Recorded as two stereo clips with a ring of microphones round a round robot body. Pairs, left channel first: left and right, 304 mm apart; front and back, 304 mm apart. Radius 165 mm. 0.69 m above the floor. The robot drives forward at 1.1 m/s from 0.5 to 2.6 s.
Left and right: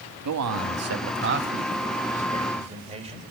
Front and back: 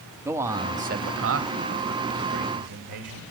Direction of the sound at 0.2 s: 100° right.